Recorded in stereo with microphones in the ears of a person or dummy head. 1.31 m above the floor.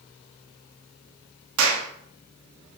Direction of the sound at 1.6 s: 80° right.